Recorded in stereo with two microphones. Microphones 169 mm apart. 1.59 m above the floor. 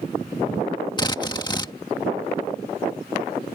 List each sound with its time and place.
1.0 s a drill: 25° left (ahead or behind)